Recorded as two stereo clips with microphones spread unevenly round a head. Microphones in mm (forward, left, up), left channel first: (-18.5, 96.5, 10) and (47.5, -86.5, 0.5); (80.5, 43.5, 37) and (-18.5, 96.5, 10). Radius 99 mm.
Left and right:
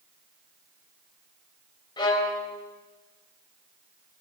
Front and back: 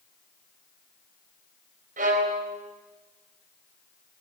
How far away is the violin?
About 3.5 m.